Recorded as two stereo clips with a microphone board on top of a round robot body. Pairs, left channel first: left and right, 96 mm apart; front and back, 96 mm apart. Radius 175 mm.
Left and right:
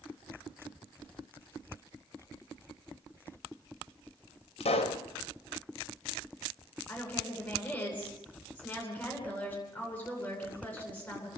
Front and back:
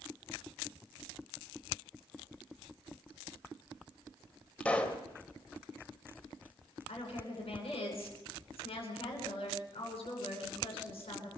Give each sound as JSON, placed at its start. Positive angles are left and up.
{"t": 4.6, "sound": "a pop", "azimuth_deg": 80, "distance_m": 2.0}
{"t": 6.9, "sound": "a woman speaking", "azimuth_deg": 20, "distance_m": 10.0}